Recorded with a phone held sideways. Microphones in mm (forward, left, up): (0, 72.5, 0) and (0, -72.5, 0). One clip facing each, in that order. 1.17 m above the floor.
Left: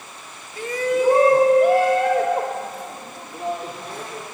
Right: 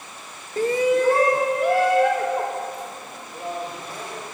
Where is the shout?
45° right (ahead or behind), 0.7 m; by 4.2 s 55° left (ahead or behind), 5 m.